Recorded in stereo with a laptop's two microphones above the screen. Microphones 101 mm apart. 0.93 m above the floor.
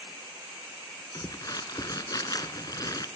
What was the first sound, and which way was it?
Crumpling, 40° left (ahead or behind).